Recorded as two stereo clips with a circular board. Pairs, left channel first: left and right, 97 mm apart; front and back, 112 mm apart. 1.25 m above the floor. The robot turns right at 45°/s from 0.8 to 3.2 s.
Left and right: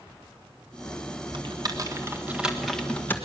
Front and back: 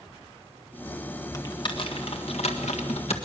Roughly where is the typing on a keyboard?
Ahead right.